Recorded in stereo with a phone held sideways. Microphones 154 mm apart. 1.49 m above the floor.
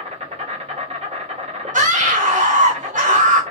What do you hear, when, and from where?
0.0 s an insect: 45° right (ahead or behind), 1.5 m
1.7 s a scream: 60° right (ahead or behind), 0.8 m